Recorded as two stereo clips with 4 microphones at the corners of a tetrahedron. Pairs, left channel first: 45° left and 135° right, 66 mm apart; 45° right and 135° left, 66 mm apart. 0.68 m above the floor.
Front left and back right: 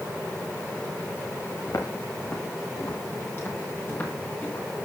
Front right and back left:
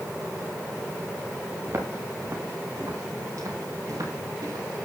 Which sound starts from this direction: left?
Footsteps, at 1.7 s.